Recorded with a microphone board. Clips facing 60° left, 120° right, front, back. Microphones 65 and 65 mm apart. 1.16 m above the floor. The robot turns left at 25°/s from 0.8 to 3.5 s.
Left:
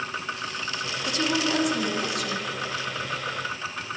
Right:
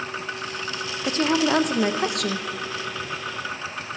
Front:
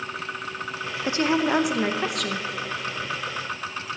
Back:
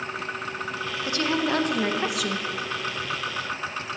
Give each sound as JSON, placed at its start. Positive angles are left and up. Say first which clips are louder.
{"t": 1.0, "sound": "a woman speaking", "louder": "right 5 dB, front 3 dB", "azimuth_deg": -65, "distance_m": 0.7}